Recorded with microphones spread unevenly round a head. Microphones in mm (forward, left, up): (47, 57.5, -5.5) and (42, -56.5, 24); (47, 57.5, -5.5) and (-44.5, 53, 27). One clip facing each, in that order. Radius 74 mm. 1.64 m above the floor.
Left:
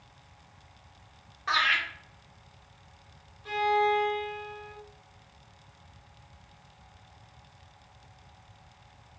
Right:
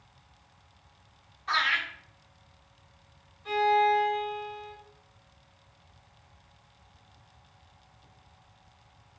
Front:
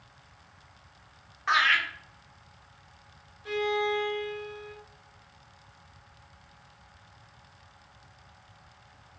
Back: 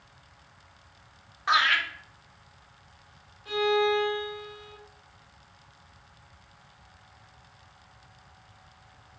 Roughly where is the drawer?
No drawer in this recording.